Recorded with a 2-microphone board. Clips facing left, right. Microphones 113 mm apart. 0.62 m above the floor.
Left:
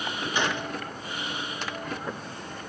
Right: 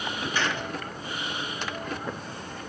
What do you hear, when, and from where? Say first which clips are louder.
0.3 s a gunshot: left 2 dB; 20° left (ahead or behind), 1.1 m